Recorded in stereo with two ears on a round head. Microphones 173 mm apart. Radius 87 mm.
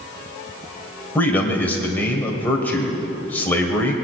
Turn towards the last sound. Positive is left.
turn(degrees=10)  # may be behind; listen again after turning